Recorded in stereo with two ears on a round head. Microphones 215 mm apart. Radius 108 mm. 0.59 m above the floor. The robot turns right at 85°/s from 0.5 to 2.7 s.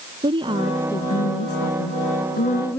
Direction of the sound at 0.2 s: 20° right.